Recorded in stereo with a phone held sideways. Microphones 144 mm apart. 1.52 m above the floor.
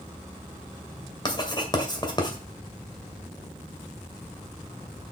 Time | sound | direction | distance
1.2 | writing | 30° left (ahead or behind) | 2 m